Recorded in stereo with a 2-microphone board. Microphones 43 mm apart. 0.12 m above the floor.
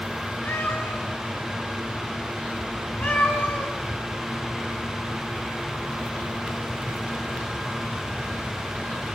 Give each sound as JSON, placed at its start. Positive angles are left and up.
{"t": 0.5, "sound": "a cat meowing", "side_deg": 50, "distance_m": 5.5}